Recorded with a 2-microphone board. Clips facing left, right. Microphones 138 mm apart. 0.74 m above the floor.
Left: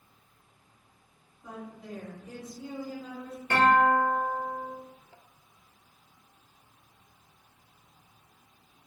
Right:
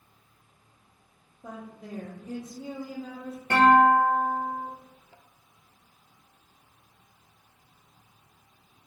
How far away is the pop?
I don't hear a pop.